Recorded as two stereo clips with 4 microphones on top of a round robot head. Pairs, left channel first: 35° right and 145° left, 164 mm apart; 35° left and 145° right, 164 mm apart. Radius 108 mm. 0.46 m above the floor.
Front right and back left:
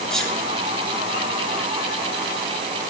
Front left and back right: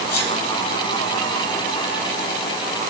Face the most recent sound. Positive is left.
turn(degrees=50)